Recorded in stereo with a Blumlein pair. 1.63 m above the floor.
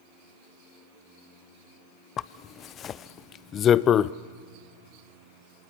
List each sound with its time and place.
2.2 s a zipper: 25° left, 0.5 m